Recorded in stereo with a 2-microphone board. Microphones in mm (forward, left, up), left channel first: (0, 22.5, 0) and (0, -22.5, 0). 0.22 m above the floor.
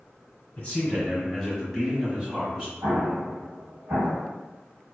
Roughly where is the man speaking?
Left.